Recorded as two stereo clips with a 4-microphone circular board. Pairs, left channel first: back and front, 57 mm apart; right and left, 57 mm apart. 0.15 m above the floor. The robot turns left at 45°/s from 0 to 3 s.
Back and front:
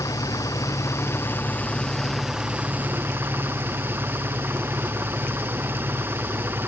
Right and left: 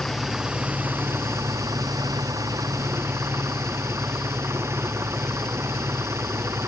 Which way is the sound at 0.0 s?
175° right.